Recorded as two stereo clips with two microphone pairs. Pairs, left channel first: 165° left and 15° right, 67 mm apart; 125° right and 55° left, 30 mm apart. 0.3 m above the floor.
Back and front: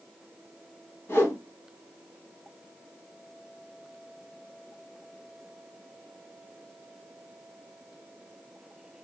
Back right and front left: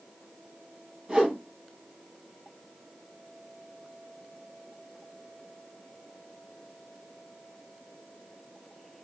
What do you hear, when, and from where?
1.1 s a whoosh: 115° left, 1.6 m